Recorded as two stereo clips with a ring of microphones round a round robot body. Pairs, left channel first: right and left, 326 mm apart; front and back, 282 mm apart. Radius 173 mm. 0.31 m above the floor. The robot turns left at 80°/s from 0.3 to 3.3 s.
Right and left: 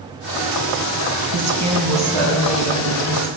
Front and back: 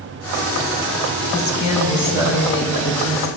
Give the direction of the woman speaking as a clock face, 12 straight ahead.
11 o'clock.